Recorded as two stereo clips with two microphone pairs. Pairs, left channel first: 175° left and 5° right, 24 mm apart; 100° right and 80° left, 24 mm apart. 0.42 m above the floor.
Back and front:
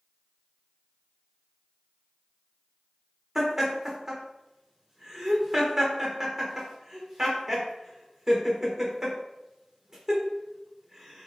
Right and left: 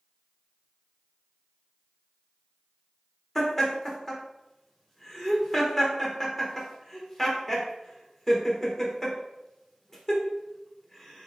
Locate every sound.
3.4 s laughter: 40° right, 1.0 m